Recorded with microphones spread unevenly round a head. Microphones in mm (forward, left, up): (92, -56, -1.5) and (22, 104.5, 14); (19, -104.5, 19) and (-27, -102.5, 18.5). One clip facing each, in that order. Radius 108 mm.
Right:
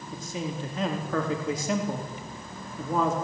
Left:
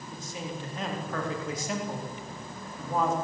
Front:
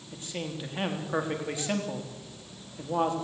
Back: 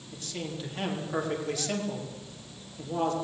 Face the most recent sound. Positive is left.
turn(degrees=-70)